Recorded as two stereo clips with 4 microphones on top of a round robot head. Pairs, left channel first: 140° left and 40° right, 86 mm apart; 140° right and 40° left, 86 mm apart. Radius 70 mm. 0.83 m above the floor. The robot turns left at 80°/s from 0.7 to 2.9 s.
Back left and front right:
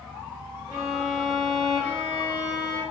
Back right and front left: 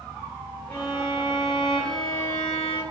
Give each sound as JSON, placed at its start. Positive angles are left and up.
{"t": 0.7, "sound": "a violin", "azimuth_deg": -80, "distance_m": 1.3}